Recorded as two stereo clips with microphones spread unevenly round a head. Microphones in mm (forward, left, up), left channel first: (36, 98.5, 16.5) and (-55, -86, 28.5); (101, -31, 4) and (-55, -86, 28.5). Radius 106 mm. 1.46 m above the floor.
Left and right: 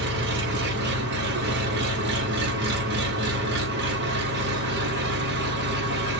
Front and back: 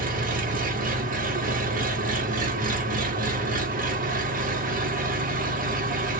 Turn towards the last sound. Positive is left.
turn(degrees=-145)